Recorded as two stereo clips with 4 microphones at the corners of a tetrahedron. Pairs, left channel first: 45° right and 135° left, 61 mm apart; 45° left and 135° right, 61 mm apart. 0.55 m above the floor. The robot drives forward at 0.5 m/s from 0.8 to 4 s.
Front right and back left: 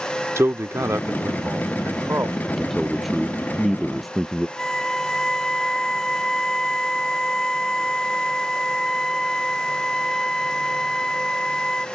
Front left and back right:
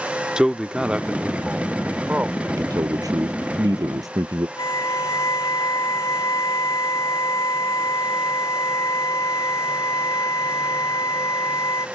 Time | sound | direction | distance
0.4 | a man speaking | 150° left | ?
2.5 | a man speaking | 135° right | ?
4.6 | a violin | 35° left | ?